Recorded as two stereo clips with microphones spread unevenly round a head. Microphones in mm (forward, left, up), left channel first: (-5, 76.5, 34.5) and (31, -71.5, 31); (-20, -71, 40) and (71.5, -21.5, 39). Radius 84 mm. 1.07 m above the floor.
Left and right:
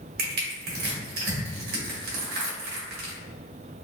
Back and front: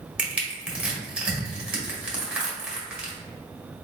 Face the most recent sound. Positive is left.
turn(degrees=-50)